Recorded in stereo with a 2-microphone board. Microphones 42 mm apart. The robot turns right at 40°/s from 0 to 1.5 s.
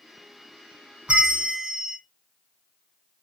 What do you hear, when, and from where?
1.1 s a bell: 25° right (ahead or behind), 1.2 m; by 2.0 s 5° right (ahead or behind), 1.2 m